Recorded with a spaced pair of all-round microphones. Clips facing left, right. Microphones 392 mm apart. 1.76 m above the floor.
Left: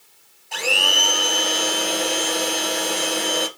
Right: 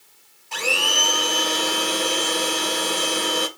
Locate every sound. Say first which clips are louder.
0.5 s a blender: left 1 dB; 15° right (ahead or behind), 1.3 m